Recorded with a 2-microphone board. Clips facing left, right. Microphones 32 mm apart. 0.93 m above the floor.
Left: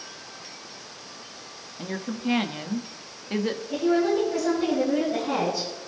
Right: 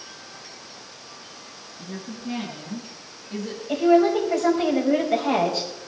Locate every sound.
1.8 s a woman speaking: 50° left (ahead or behind), 1.9 m
3.7 s a woman speaking: 70° right (ahead or behind), 5.5 m